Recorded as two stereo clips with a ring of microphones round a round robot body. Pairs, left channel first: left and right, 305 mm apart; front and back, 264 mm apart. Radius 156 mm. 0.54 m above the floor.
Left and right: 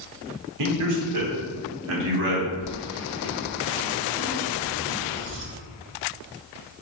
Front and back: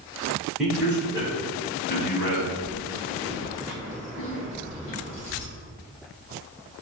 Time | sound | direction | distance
0.6 | a man speaking | 90° right | 1.3 m
2.6 | keys jangling | 40° right | 0.9 m